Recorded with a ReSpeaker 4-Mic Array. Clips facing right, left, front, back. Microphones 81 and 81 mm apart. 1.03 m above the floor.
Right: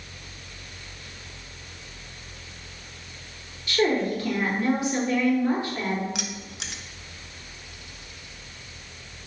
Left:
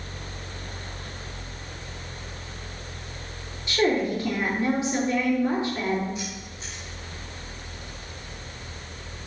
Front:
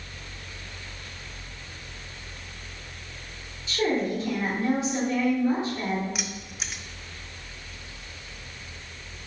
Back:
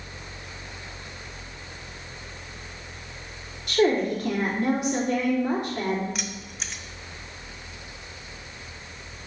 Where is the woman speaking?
155° left, 2.5 m.